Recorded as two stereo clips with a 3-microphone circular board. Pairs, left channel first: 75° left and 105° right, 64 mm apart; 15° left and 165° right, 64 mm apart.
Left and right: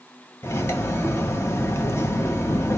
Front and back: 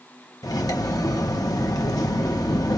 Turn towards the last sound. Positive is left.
turn(degrees=25)